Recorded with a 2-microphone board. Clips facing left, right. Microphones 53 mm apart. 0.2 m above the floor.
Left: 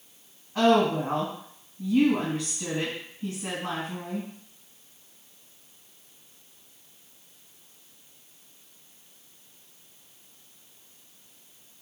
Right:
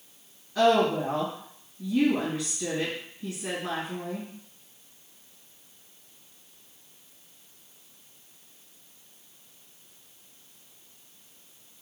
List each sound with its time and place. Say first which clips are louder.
0.6 s a woman speaking: left 1 dB; 40° left (ahead or behind), 2.0 m